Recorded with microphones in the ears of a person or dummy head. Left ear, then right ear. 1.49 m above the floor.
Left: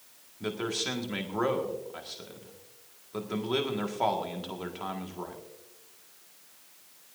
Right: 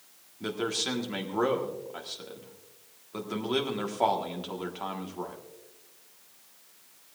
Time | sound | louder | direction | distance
0.4 | a man speaking | right 1 dB | centre (ahead or behind) | 1.6 m